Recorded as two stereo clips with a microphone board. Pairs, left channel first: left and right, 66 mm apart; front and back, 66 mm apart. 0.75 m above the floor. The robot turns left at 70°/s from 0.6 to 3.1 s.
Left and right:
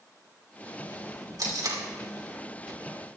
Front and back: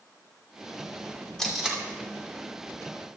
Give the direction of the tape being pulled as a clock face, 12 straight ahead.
3 o'clock.